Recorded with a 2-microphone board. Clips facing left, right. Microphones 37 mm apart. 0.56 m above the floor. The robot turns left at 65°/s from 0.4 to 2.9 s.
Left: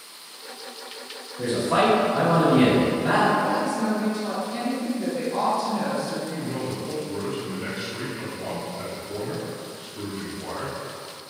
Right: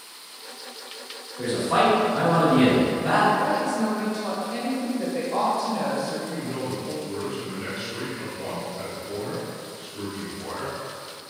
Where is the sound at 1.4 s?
125° right, 1.3 m; by 3.3 s 135° left, 1.3 m.